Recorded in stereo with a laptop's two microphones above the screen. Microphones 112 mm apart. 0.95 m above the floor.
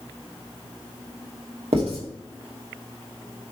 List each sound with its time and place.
1.7 s writing: 70° right (ahead or behind), 2 m